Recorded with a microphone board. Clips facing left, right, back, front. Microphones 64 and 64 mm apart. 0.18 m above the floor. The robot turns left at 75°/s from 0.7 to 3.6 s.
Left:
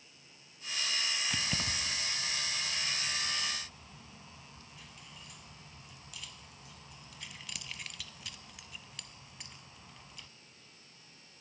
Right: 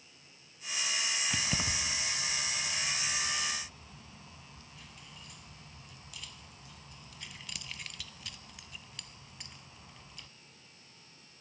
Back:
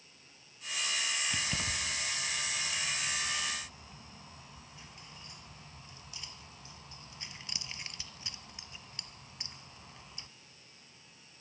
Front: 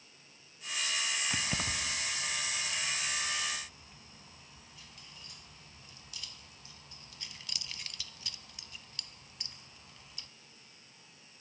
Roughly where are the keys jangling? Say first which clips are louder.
Right 1 dB, front 1 dB; ahead.